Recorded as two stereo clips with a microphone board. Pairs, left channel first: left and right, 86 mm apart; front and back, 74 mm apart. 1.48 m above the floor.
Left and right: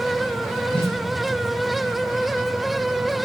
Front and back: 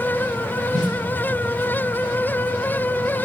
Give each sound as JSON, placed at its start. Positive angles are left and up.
{"t": 0.7, "sound": "a snare drum", "azimuth_deg": 5, "distance_m": 4.0}